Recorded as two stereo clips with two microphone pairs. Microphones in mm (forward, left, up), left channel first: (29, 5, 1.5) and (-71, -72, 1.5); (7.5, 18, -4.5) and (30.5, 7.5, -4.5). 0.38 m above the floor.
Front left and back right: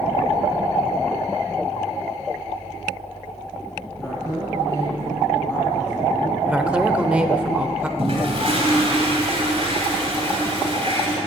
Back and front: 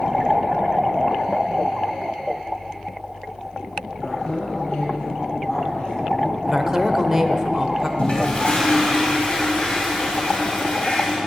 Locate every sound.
4.0 s a woman speaking: 105° left, 3.5 m
6.5 s a woman speaking: 75° right, 0.9 m
8.0 s a toilet flushing: 175° right, 2.5 m